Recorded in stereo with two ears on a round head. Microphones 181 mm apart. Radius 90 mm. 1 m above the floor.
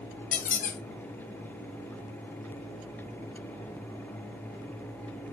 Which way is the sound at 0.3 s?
40° left (ahead or behind).